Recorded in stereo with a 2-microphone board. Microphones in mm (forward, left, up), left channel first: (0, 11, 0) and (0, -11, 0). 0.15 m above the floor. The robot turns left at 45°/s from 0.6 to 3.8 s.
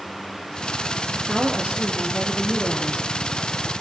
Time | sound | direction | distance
1.1 | a woman speaking | 55° right | 4 m